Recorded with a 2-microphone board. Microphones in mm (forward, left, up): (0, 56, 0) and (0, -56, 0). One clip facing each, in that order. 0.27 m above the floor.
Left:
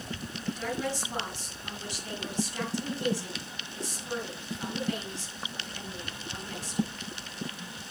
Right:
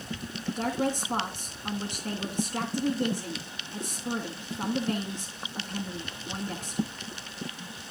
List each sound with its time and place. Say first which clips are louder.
0.5 s a woman speaking: right 4 dB; 55° right (ahead or behind), 3 m